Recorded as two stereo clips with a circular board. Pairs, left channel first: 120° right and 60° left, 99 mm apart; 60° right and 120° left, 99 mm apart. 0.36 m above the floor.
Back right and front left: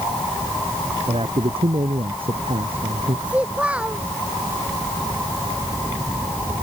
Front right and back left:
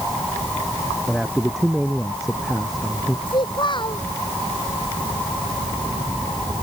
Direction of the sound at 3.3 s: 20° right.